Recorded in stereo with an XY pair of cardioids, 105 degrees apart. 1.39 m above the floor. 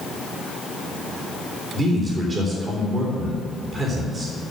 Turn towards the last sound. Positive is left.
turn(degrees=-35)